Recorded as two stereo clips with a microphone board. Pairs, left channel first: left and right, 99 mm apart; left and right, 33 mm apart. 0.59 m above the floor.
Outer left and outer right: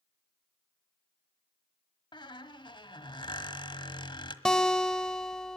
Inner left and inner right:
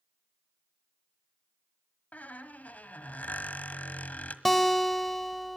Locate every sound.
2.1 s a squeak: 50° left (ahead or behind), 1.5 m
4.5 s a guitar: 5° left (ahead or behind), 1.3 m